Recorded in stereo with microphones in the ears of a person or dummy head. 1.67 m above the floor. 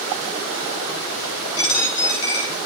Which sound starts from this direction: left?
A dropped coin, at 1.6 s.